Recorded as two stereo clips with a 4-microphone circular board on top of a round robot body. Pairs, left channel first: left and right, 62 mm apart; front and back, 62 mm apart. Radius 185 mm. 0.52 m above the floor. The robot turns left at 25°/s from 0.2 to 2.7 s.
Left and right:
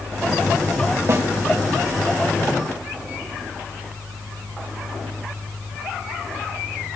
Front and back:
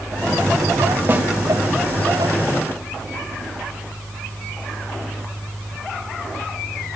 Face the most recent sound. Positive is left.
turn(degrees=-170)